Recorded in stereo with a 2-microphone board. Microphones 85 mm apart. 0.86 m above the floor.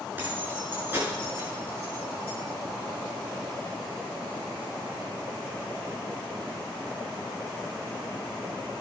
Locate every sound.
0.2 s keys jangling: 20° right (ahead or behind), 6.5 m; by 2.4 s 30° right (ahead or behind), 7.5 m